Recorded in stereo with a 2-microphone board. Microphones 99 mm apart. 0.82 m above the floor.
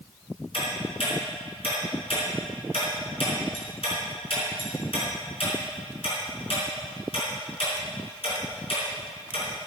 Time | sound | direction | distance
0.5 | ticking | 75° left (ahead or behind) | 4.5 m